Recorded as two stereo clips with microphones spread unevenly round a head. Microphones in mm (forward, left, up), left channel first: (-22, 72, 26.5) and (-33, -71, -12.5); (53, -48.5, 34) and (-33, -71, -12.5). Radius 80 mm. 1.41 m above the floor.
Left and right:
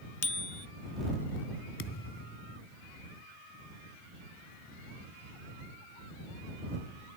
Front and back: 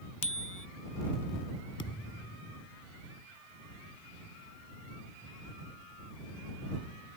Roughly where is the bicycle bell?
Ahead left.